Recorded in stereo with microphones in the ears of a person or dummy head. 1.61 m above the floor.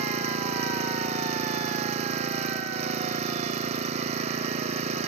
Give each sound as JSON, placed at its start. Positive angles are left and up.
{"t": 0.0, "sound": "an engine running", "side_deg": -35}